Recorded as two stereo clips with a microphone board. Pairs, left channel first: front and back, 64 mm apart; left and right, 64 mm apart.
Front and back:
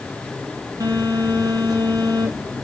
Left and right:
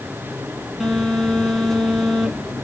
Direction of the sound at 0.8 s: 175° left.